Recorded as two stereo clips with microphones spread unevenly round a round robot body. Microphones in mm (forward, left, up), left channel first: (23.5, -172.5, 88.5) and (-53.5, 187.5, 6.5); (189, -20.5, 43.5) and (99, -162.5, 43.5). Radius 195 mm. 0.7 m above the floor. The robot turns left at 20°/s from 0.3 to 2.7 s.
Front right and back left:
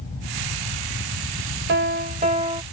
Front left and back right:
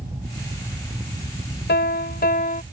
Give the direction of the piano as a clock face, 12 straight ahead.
11 o'clock.